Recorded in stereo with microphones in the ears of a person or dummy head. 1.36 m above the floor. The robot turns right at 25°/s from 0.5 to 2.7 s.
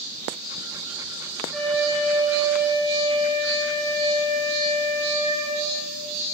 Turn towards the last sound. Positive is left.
turn(degrees=-20)  # may be behind; listen again after turning